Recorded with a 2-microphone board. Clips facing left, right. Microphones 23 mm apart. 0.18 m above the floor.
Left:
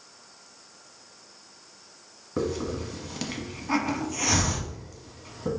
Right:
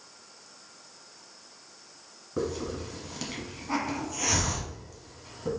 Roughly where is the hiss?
Centre.